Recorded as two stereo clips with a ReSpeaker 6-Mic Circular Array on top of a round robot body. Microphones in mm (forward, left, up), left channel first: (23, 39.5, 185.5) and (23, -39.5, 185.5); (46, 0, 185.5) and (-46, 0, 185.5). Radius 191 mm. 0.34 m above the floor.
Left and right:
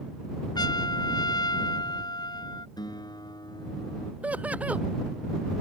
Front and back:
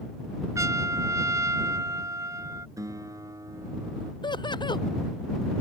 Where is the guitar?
125° left.